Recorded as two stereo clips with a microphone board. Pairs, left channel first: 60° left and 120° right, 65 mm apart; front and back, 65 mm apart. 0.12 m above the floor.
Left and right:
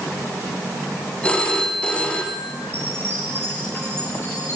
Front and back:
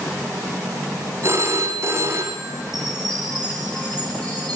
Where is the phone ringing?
135° left, 4.5 m.